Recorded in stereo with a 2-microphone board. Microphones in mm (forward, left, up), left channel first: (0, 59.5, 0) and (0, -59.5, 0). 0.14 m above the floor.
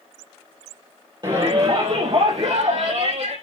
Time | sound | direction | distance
1.2 | a shout | 40° right (ahead or behind) | 3 m